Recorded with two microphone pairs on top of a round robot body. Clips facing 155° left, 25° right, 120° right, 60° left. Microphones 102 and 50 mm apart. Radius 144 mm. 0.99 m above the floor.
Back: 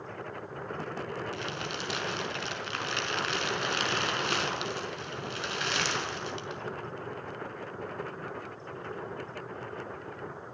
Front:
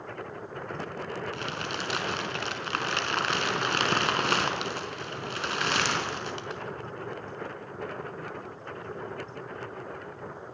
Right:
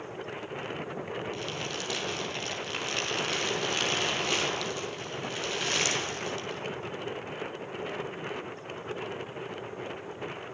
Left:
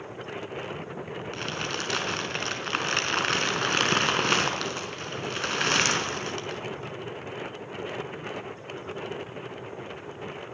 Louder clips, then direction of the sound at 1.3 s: Front 2 dB, left 3 dB; 15° left.